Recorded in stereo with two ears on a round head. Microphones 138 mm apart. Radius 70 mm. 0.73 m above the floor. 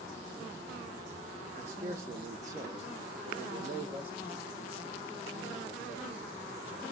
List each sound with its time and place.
1.6 s a man speaking: 15° right (ahead or behind), 0.7 m; by 6.8 s 10° right (ahead or behind), 3 m